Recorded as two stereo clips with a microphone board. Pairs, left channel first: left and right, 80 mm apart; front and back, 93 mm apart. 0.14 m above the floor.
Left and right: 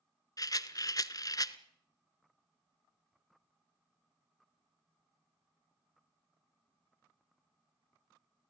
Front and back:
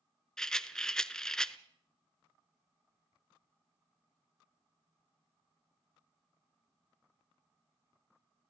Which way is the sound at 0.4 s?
80° left.